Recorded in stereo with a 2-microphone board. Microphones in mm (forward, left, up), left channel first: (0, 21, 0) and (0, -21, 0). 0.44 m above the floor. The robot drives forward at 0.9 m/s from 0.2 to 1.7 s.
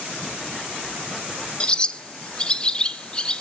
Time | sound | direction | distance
1.6 | a bird | 25° left (ahead or behind) | 0.5 m